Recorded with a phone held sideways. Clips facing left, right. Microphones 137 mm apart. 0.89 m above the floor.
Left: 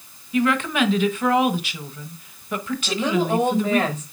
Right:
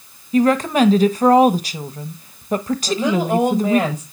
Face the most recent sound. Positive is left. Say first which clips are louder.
# right 2 dB
turn(degrees=-10)  # may be behind; listen again after turning